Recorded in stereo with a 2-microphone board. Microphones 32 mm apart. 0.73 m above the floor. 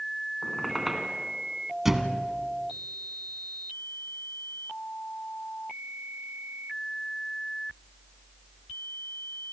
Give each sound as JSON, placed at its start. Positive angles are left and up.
{"t": 0.4, "sound": "a squeak", "side_deg": -5, "distance_m": 3.0}
{"t": 1.9, "sound": "a thud", "side_deg": -10, "distance_m": 1.6}